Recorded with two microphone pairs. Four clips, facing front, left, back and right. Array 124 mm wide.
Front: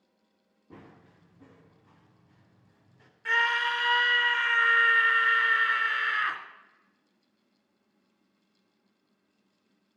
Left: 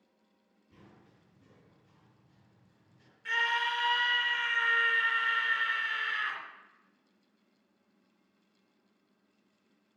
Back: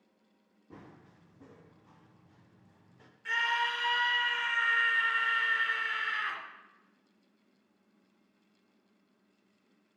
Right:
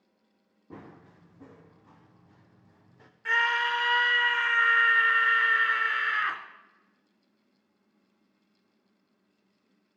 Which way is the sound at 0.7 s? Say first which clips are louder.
Right 12 dB, front 1 dB; 90° right.